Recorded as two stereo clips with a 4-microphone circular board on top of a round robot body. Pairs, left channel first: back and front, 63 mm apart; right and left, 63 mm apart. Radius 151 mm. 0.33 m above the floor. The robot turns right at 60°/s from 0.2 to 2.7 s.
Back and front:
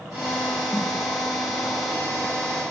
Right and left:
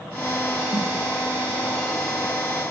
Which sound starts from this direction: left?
A snare drum, at 0.7 s.